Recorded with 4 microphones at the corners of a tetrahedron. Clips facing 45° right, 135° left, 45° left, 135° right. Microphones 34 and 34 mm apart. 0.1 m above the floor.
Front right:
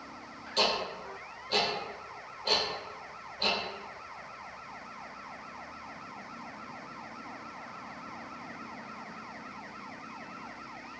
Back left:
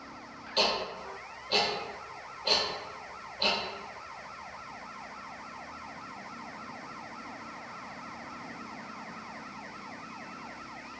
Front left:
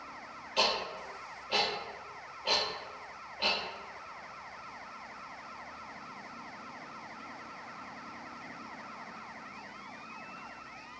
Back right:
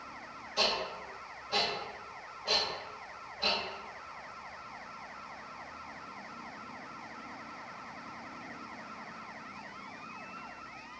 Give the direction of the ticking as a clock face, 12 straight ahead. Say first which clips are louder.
Even, front left 1 dB; 10 o'clock.